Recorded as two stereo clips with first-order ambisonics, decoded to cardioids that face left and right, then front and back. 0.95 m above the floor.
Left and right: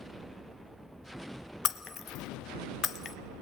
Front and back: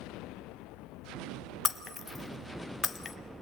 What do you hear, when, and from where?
1.6 s breaking glass: 65° left, 0.9 m